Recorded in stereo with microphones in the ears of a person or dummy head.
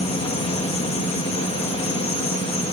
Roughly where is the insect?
Left.